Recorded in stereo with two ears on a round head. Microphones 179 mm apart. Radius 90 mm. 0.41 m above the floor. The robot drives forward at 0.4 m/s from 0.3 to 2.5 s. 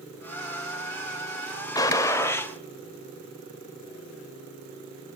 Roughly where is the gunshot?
Centre.